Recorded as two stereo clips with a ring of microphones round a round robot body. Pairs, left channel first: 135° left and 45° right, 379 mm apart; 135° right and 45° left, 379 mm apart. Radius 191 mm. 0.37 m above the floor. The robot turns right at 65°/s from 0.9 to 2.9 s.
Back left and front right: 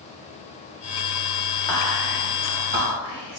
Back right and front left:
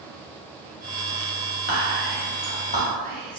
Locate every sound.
1.7 s whispering: 150° right, 0.9 m; by 3.4 s 70° right, 0.9 m